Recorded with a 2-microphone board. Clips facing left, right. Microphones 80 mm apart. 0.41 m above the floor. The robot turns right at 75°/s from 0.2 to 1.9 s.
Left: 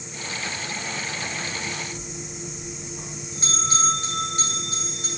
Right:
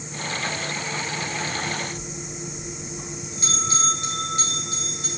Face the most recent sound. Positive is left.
turn(degrees=30)  # may be behind; listen again after turning